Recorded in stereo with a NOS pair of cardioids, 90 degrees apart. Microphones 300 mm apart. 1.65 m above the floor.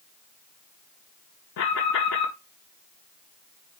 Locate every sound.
1.6 s an alarm: 65° left, 3 m